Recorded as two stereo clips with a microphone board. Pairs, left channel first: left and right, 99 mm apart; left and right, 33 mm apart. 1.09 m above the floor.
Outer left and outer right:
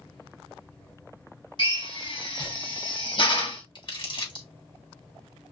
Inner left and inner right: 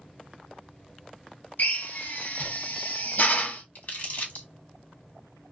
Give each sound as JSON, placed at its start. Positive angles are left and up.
{"t": 1.6, "sound": "a drill", "side_deg": 50, "distance_m": 1.8}
{"t": 3.8, "sound": "crumpling", "side_deg": 50, "distance_m": 1.6}